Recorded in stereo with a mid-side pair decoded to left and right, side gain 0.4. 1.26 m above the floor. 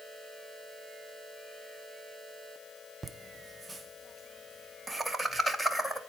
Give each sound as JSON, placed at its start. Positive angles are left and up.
{"t": 3.0, "sound": "laughter", "azimuth_deg": -30, "distance_m": 0.5}